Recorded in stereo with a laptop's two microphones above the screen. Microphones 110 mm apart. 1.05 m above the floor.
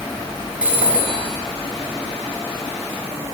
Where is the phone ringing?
10° right (ahead or behind), 5 m.